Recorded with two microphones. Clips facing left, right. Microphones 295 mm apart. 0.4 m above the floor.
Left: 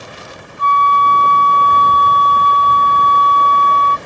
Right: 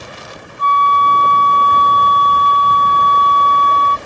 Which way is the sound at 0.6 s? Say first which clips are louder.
Even; 25° left (ahead or behind).